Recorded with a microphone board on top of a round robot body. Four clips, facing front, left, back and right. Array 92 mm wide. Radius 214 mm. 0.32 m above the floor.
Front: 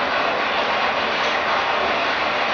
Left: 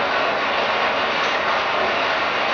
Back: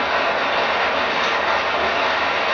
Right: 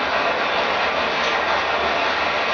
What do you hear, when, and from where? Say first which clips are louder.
0.0 s running water: even, back 1 dB; straight behind, 1.2 m